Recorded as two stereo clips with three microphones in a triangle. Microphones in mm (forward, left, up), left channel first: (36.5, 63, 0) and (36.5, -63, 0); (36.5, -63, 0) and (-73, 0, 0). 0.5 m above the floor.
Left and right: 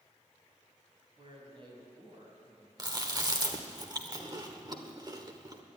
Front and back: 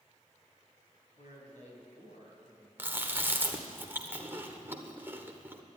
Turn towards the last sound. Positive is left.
turn(degrees=-140)